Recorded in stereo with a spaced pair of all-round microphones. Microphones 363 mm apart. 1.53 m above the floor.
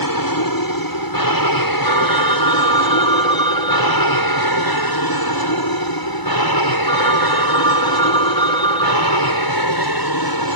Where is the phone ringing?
15° left (ahead or behind).